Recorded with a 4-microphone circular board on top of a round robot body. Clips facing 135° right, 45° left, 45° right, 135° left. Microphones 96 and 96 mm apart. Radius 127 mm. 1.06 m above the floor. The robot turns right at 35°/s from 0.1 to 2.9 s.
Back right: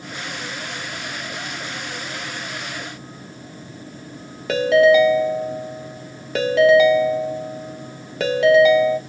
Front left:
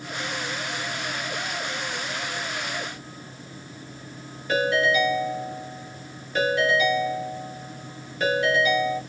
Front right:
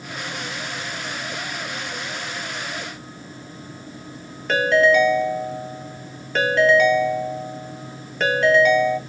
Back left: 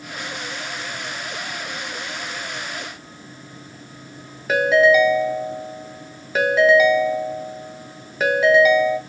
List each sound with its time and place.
4.5 s a ringtone: 140° right, 0.9 m